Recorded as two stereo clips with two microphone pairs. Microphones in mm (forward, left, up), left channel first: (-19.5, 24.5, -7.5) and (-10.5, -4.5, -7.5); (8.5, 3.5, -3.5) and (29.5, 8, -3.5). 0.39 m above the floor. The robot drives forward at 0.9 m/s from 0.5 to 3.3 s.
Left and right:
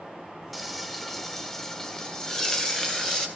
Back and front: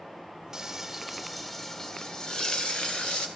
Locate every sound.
0.5 s frying: 25° left, 1.4 m; by 3.3 s 170° left, 2 m